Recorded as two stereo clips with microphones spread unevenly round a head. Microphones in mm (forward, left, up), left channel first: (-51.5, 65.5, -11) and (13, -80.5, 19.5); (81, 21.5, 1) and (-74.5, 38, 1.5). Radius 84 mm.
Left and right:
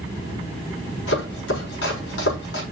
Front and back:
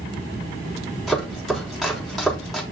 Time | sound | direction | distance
1.1 | chopping | 85° left | 5 m